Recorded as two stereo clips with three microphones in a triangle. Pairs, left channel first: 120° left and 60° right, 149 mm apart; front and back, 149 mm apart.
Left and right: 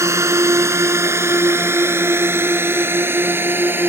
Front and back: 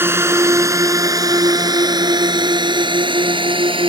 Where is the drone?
115° right; by 3.9 s 135° right.